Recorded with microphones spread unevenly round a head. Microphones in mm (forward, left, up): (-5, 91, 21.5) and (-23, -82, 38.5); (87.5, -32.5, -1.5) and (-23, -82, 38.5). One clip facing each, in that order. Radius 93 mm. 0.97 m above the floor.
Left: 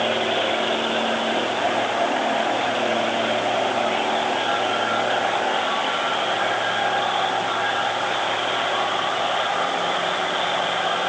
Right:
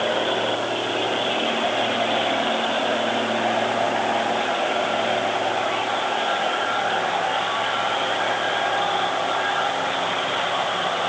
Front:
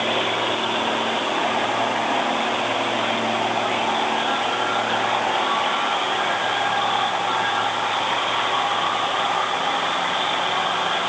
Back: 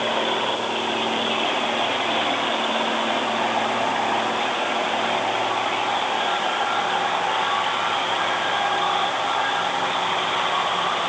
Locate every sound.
Only background noise.